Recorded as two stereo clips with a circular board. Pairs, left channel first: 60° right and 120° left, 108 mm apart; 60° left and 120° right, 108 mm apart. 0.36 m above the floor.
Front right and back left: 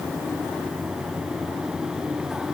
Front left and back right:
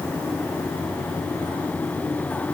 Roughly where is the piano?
No piano in this recording.